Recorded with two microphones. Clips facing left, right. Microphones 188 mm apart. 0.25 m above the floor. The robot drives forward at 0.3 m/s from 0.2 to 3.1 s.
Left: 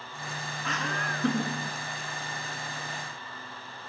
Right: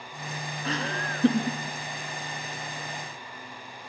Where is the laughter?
35° right (ahead or behind), 3.5 m.